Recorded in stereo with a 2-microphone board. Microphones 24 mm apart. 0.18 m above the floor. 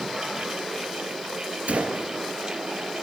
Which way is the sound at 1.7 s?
65° right (ahead or behind).